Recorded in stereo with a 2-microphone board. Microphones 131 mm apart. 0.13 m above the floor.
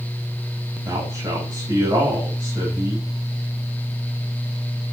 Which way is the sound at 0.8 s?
25° right (ahead or behind).